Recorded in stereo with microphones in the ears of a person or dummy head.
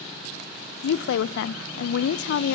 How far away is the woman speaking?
About 0.5 m.